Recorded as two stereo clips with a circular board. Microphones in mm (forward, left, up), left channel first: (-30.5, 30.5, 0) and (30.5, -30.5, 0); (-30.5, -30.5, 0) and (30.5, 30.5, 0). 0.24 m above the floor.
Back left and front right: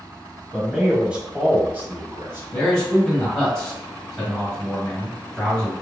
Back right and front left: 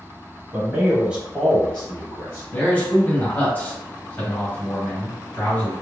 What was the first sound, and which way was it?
A man speaking, 40° left.